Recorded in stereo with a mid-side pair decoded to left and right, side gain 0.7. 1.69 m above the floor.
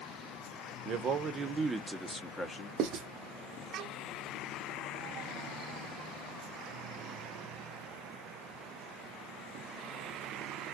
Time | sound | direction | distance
0.8 | a man speaking | 50° right | 0.8 m
2.8 | writing | 55° right | 0.7 m